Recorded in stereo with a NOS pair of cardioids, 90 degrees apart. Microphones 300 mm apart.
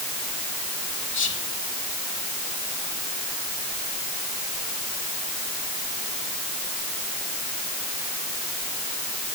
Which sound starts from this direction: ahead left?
Whispering, at 1.1 s.